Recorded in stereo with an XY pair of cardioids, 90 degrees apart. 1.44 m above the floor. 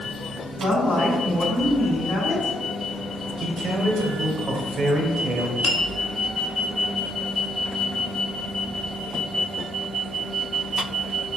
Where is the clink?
45° left, 0.9 m.